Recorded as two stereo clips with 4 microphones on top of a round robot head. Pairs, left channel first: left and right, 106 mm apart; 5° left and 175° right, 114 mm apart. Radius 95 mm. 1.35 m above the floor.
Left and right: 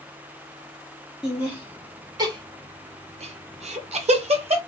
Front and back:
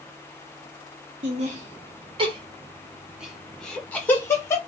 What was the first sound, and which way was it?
Laughter, 175° right.